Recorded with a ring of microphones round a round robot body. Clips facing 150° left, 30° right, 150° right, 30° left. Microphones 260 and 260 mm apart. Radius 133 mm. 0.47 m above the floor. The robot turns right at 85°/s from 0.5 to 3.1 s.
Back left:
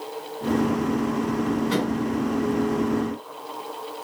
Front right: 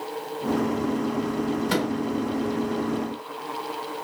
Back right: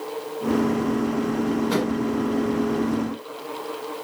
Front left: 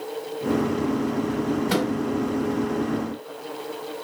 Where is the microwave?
15° right, 1.0 m; by 1.9 s 5° left, 1.0 m.